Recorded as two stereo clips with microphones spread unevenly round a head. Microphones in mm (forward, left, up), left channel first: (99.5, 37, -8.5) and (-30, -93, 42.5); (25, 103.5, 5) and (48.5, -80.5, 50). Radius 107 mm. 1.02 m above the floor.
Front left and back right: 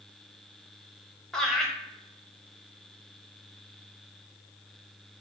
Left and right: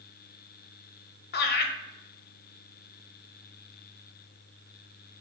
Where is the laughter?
130° left, 0.8 m.